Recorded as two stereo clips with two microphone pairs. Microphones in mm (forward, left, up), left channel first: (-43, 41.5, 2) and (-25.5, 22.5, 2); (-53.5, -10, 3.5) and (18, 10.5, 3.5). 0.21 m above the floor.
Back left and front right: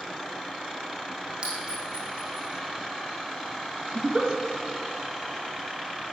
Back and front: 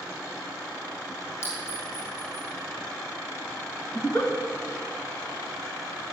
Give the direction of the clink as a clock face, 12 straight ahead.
4 o'clock.